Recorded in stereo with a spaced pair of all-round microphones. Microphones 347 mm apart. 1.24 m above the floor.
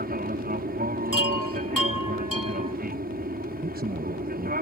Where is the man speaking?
25° right (ahead or behind).